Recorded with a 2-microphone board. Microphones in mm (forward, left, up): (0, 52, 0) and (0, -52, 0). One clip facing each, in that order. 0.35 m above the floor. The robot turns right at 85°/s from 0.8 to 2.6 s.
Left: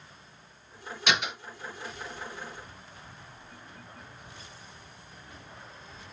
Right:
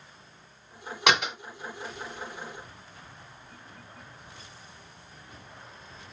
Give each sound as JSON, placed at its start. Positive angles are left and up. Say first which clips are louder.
{"t": 1.1, "sound": "a door slam", "louder": "right 5 dB", "side_deg": -70, "distance_m": 2.0}